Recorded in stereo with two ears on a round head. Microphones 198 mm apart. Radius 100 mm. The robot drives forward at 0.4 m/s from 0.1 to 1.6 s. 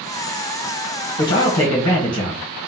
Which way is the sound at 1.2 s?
35° left (ahead or behind).